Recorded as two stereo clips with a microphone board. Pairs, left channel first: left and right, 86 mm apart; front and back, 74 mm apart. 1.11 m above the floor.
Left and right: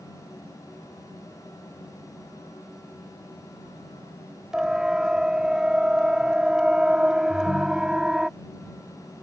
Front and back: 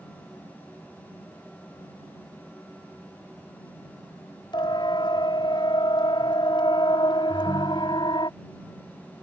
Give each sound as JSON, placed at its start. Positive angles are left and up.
{"t": 4.5, "sound": "a siren", "azimuth_deg": -10}
{"t": 7.3, "sound": "a ringtone", "azimuth_deg": 135}